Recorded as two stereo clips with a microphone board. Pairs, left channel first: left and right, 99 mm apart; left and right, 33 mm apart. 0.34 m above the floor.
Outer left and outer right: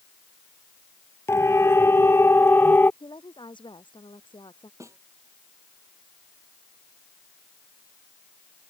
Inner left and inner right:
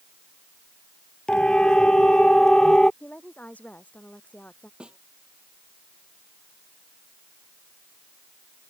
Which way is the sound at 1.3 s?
25° left (ahead or behind).